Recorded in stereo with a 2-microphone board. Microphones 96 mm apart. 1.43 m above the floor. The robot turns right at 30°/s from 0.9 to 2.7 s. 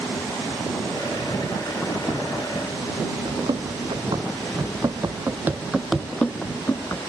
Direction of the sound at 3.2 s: 70° right (ahead or behind).